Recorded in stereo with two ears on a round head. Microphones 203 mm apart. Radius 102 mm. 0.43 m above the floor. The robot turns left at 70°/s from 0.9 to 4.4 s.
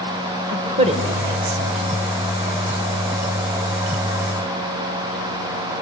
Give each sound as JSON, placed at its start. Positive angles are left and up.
{"t": 0.5, "sound": "a woman speaking", "side_deg": -30, "distance_m": 2.0}